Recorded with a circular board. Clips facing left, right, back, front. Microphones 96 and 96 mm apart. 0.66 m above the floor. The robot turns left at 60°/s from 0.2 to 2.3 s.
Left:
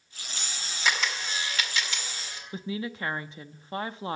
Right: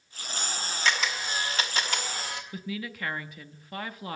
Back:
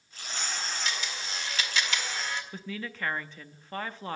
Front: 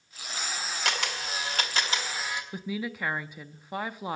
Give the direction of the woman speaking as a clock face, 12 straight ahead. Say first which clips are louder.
Left 7 dB, front 4 dB; 10 o'clock.